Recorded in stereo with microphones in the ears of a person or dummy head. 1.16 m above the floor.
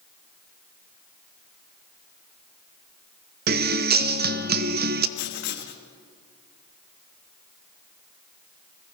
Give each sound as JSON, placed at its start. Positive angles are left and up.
{"t": 3.5, "sound": "a guitar", "side_deg": -50, "distance_m": 0.9}
{"t": 5.2, "sound": "writing", "side_deg": 60, "distance_m": 1.5}